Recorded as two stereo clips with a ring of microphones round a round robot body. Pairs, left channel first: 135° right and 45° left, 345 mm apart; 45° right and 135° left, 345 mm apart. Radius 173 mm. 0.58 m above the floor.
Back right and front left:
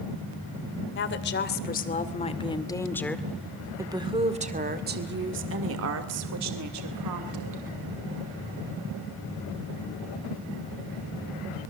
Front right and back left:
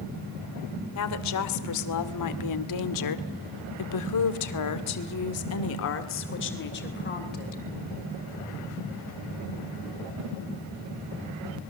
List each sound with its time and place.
0.9 s a woman speaking: 85° right, 2.5 m; by 7.6 s 15° left, 3 m